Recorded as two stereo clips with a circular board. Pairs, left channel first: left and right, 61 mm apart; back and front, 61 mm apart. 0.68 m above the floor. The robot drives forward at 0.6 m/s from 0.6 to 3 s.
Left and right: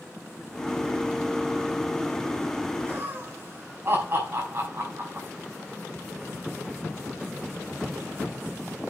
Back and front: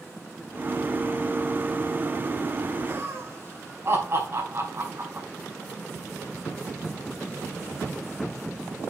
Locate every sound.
2.9 s laughter: 40° right, 4.5 m